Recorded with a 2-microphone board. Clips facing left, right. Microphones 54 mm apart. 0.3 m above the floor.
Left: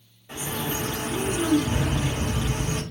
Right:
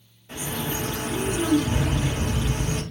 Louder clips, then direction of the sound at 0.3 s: Even; 20° left (ahead or behind).